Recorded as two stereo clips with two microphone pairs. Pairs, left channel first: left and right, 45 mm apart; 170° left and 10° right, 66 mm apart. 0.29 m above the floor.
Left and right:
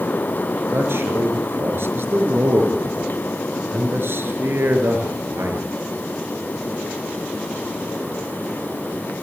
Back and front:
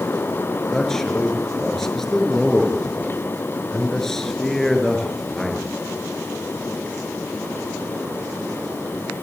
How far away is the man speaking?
About 5.5 m.